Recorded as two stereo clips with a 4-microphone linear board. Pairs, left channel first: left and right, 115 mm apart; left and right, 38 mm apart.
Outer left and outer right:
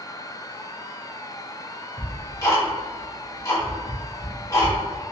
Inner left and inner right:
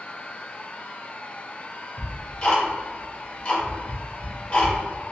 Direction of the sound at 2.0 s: 30° left (ahead or behind).